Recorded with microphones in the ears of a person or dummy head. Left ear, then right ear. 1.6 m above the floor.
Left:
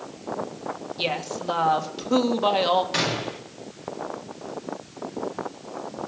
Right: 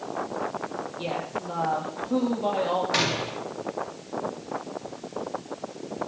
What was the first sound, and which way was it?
A woman speaking, 65° left (ahead or behind).